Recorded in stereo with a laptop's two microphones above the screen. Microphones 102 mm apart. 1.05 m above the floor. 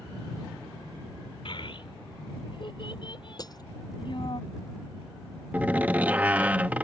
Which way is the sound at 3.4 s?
40° left (ahead or behind).